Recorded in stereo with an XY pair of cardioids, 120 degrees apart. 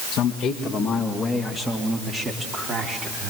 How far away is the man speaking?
About 2.0 m.